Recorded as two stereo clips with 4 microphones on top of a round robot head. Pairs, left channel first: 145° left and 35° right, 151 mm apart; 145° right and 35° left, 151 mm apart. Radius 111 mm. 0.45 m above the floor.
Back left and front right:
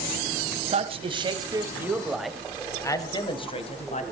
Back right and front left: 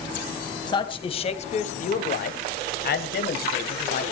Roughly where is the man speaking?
Right.